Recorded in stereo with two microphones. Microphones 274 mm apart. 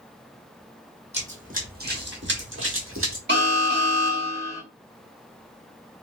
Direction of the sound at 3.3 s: 40° right (ahead or behind).